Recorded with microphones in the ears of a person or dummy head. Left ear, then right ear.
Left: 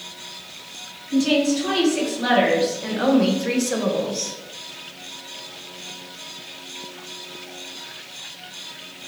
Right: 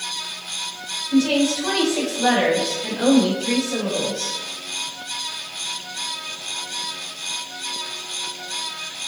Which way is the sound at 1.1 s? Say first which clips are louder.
Even; 5° right (ahead or behind).